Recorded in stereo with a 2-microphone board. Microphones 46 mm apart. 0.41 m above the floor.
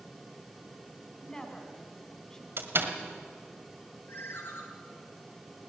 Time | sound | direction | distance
1.2 | a woman speaking | 15° left (ahead or behind) | 3 m
2.6 | a door slam | 65° right (ahead or behind) | 1.9 m
4.1 | a ringtone | 65° left (ahead or behind) | 4 m